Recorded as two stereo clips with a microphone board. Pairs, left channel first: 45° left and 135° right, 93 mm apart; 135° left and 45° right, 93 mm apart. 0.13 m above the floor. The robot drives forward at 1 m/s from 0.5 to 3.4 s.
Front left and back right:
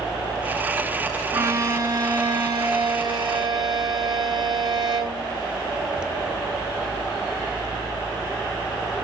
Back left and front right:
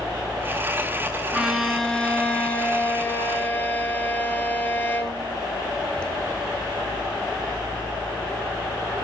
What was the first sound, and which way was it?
A violin, 120° right.